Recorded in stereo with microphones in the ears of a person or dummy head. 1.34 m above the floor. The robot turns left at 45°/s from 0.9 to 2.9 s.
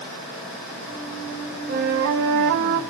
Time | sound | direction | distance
1.7 | a flute | 60° right | 0.8 m